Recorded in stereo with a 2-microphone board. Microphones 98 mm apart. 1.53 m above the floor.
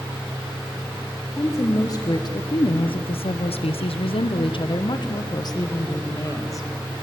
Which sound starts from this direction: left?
A woman speaking, at 1.4 s.